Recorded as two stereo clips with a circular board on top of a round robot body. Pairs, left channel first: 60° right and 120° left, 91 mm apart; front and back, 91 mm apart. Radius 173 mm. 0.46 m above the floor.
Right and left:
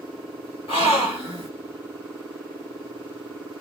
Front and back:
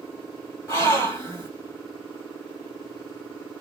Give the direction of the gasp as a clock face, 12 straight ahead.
2 o'clock.